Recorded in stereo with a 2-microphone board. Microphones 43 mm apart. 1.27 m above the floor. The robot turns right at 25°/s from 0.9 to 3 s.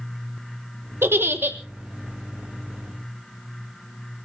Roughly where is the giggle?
Right.